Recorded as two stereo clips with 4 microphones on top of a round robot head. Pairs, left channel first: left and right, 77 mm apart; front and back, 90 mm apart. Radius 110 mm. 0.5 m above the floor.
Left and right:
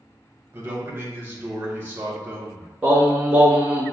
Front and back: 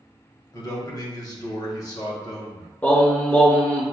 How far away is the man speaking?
About 1.1 m.